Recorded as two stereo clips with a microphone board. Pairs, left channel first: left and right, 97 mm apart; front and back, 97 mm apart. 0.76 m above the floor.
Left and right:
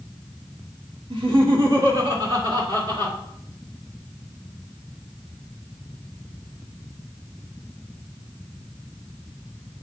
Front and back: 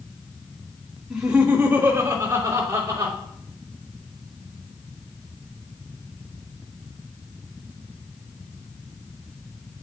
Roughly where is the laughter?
Right.